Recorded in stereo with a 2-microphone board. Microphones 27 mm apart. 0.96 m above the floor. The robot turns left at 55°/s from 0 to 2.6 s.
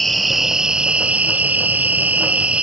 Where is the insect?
10° left; by 2.6 s 135° right.